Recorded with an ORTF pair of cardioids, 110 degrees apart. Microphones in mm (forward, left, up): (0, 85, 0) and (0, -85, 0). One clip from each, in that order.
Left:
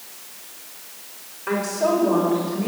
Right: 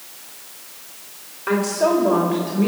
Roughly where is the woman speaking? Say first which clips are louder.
Right 3 dB; ahead.